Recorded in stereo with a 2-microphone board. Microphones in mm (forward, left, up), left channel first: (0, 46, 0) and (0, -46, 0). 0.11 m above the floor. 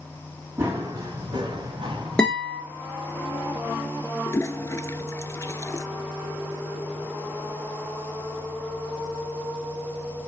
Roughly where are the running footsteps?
Right.